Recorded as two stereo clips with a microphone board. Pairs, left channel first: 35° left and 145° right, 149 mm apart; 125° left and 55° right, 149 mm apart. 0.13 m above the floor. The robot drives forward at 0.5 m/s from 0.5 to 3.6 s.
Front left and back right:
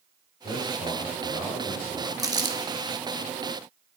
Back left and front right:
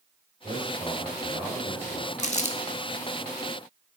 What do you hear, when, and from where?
0.4 s a man speaking: 10° right, 4 m; by 2.1 s 15° right, 3 m
2.2 s crumpling: 150° left, 0.9 m; by 2.6 s 155° left, 1.1 m